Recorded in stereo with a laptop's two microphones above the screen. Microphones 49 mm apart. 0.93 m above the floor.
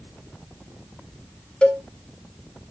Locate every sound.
1.6 s a cowbell: 20° left (ahead or behind), 0.7 m